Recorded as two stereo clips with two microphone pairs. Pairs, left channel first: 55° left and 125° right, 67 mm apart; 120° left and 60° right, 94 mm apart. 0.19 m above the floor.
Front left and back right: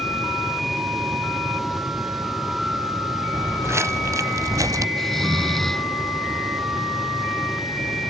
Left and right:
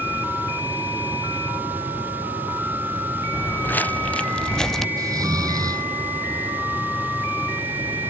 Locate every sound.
3.3 s footsteps: 175° right; by 4.9 s 155° right
5.0 s snoring: 30° right